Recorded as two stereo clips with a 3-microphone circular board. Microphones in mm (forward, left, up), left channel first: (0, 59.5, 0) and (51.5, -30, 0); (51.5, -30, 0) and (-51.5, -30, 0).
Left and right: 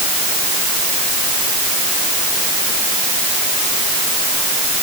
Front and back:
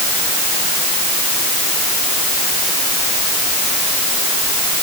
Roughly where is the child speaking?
I don't hear a child speaking.